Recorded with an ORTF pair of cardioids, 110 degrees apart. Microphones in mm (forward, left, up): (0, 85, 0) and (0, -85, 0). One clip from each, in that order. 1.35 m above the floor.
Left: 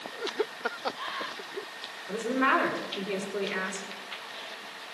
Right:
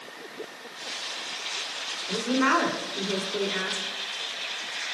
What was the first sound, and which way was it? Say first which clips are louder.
A woman speaking: right 1 dB; 10° right.